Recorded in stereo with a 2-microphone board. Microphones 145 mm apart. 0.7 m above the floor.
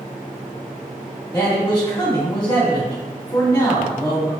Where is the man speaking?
30° left (ahead or behind), 1.6 m.